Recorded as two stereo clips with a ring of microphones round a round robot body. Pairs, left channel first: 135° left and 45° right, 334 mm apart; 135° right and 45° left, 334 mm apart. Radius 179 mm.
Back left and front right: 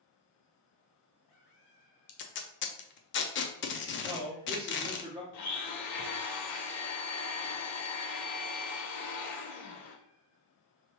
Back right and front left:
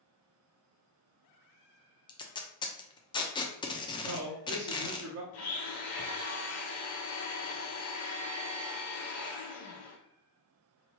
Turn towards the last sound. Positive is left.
turn(degrees=180)